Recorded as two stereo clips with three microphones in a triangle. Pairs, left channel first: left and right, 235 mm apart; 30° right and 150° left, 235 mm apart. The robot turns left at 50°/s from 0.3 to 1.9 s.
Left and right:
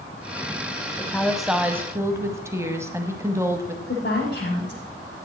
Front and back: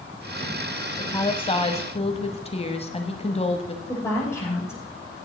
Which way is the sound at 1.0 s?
20° left.